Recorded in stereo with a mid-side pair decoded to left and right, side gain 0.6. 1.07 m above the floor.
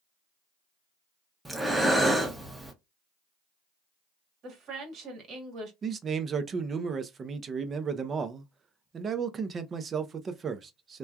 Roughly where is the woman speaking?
Ahead right.